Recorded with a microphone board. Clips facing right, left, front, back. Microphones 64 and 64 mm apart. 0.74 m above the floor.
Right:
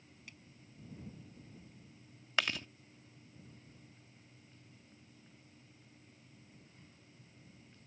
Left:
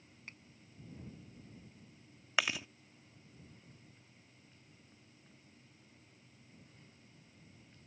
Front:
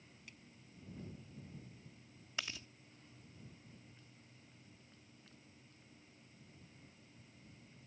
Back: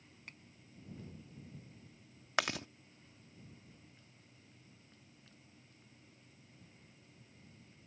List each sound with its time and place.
0.3 s a finger snap: 140° left
2.4 s chewing: 175° left